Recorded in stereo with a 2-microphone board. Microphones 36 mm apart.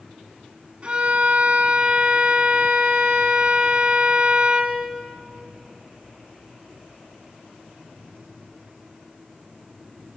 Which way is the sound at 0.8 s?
30° right (ahead or behind).